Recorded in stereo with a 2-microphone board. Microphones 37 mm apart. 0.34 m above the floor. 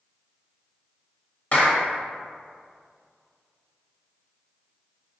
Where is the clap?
45° left (ahead or behind), 1.5 m.